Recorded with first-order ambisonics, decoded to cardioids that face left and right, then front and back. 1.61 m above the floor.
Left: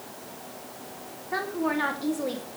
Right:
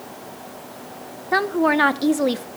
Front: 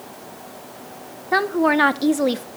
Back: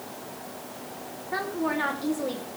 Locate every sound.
1.3 s a woman speaking: 40° right, 0.9 m